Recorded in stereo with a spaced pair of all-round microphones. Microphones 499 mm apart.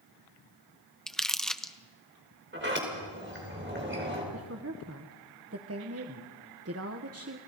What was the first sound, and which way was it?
Crumpling, centre (ahead or behind).